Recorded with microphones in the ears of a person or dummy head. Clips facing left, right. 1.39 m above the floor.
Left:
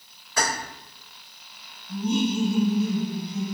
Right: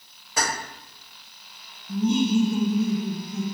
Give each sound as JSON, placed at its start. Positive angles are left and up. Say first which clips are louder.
{"t": 0.4, "sound": "keys jangling", "louder": "left 1 dB", "side_deg": -20, "distance_m": 1.6}
{"t": 1.9, "sound": "laughter", "louder": "right 3 dB", "side_deg": -55, "distance_m": 0.5}